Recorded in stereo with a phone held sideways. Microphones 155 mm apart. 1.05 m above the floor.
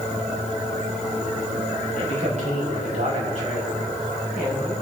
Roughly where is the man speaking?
Right.